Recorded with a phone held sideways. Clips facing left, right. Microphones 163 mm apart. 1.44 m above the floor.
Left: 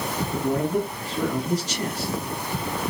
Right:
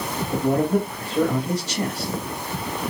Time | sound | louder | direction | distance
0.3 | a man speaking | right 4 dB | 70° right (ahead or behind) | 1.8 m